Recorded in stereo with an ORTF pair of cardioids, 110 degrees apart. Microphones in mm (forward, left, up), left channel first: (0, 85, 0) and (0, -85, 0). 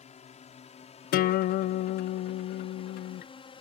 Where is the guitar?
60° left.